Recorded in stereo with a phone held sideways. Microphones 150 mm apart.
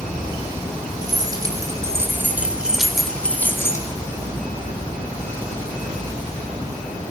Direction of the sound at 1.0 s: 30° right (ahead or behind).